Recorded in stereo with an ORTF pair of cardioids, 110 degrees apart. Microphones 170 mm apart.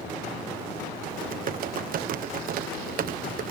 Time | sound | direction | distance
1.1 | typing on a keyboard | 55° right | ?